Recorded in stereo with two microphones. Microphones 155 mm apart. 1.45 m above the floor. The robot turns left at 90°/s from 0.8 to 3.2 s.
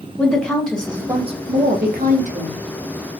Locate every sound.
0.2 s a woman speaking: 5° left, 0.7 m; by 2.6 s 155° right, 0.7 m